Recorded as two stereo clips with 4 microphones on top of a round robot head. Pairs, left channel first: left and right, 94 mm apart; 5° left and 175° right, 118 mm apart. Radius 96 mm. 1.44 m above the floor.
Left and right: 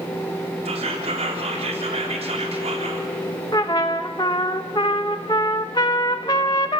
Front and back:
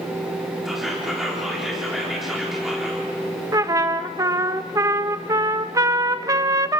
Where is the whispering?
90° right, 4 m.